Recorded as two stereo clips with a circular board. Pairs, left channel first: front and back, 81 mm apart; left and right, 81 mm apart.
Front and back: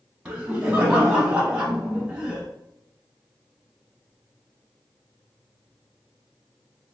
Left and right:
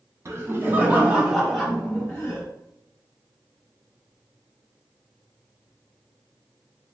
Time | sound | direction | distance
0.2 | laughter | 110° right | 1.3 m